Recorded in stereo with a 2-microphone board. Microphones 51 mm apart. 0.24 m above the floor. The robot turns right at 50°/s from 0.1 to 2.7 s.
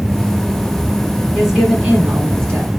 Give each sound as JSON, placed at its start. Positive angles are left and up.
{"t": 1.3, "sound": "a woman speaking", "azimuth_deg": 170, "distance_m": 4.5}